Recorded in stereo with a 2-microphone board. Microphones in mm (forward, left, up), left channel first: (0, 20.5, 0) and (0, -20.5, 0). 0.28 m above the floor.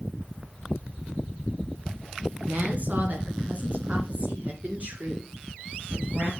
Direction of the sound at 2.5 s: 40° right (ahead or behind).